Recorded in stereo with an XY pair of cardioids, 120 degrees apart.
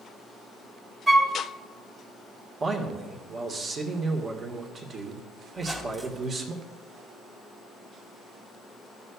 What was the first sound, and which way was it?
A flute, 20° right.